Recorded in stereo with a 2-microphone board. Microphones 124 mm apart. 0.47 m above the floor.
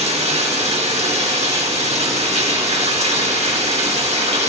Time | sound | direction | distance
0.0 | running water | 60° right (ahead or behind) | 0.9 m